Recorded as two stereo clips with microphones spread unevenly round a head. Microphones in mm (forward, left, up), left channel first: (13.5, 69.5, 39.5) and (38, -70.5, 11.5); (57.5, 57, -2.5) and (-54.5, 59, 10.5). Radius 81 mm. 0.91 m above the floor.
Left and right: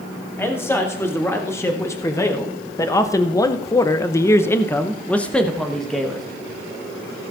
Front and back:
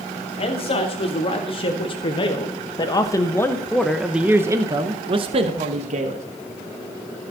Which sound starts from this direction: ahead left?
A man speaking, at 0.4 s.